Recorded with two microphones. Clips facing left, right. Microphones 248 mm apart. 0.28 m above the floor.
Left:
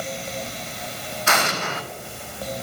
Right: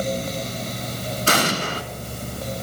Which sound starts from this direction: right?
An explosion, at 1.3 s.